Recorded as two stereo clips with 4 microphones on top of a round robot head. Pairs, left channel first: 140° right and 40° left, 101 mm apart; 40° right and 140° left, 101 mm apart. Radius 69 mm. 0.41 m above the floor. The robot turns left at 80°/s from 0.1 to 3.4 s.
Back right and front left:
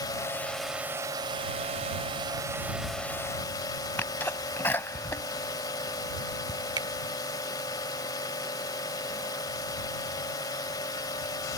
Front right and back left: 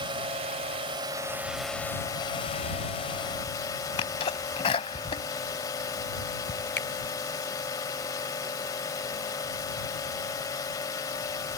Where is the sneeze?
70° right.